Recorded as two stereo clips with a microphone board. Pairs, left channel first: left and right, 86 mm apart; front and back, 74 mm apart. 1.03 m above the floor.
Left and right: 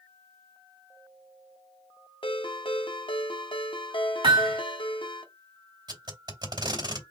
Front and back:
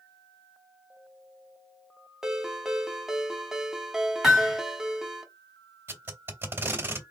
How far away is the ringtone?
About 0.9 m.